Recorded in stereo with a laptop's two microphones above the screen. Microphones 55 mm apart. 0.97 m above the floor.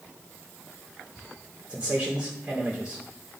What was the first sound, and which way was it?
A man speaking, 20° right (ahead or behind).